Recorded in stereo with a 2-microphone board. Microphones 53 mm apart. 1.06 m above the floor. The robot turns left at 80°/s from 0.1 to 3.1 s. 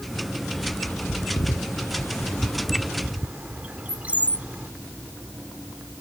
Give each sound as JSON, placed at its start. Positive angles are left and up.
{"t": 0.6, "sound": "a bird", "side_deg": 5}